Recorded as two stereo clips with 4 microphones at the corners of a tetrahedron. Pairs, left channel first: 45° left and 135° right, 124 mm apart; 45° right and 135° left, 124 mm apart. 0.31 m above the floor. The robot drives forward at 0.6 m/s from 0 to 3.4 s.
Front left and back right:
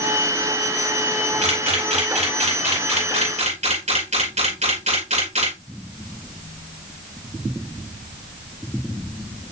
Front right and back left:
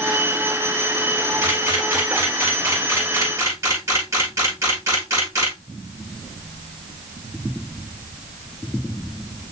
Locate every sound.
1.4 s a camera shutter: 155° right, 5.5 m